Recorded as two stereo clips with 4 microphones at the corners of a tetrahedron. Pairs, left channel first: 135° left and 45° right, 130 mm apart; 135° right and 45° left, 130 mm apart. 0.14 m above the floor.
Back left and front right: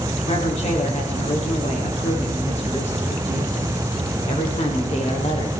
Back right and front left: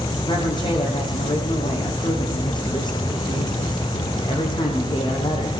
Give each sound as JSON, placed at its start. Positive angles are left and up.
{"t": 0.3, "sound": "a woman speaking", "azimuth_deg": 170, "distance_m": 8.5}